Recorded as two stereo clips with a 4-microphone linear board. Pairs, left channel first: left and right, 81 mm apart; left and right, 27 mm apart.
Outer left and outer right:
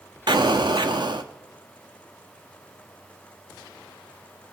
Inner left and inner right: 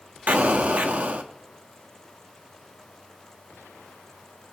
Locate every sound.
0.3 s an explosion: 70° right (ahead or behind), 0.8 m